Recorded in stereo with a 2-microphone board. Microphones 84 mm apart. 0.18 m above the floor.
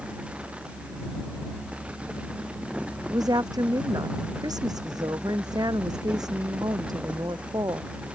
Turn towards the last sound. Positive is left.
turn(degrees=-55)  # may be behind; listen again after turning